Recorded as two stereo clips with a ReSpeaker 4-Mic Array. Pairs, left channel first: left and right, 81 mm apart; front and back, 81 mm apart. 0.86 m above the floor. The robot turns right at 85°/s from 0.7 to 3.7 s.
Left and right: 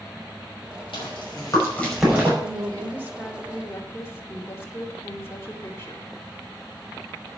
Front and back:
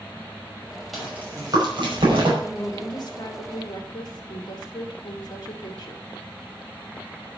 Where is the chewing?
90° left, 5.5 m; by 2.3 s 155° right, 5.5 m.